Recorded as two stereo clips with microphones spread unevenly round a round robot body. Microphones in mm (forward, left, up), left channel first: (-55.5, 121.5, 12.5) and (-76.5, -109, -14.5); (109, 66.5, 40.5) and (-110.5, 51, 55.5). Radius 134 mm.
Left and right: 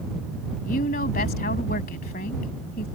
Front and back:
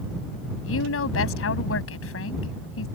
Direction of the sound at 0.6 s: 25° left.